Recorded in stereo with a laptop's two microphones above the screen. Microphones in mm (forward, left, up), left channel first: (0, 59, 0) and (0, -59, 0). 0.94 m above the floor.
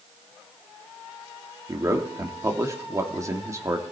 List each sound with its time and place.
1.7 s a man speaking: 25° right (ahead or behind), 2.5 m